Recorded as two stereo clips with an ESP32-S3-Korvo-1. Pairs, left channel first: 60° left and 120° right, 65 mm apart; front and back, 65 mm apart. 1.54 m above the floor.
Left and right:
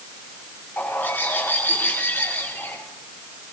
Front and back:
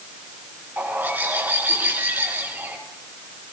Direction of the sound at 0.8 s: 120° left.